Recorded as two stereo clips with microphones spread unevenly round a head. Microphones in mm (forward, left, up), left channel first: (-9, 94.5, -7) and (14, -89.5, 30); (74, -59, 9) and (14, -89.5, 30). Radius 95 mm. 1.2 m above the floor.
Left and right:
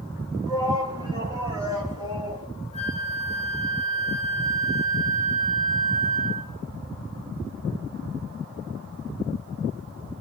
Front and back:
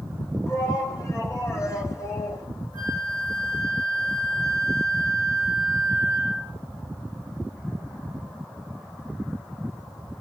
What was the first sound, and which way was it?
A shout, 10° right.